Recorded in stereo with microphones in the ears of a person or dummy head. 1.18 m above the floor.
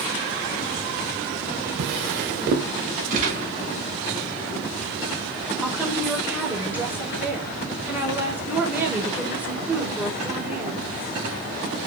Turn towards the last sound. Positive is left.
turn(degrees=-10)  # may be behind; listen again after turning